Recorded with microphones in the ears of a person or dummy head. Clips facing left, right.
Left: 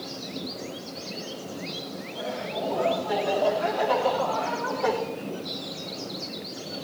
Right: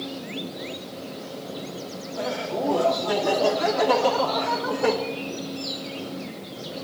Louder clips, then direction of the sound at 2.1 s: Right 5 dB; 85° right.